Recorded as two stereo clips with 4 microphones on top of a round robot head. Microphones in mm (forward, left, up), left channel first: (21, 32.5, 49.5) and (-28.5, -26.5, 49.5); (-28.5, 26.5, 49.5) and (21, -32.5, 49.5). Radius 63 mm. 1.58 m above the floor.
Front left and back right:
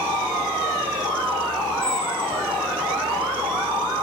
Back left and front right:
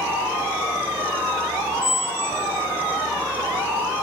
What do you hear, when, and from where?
1.8 s a squeak: 30° left, 1.5 m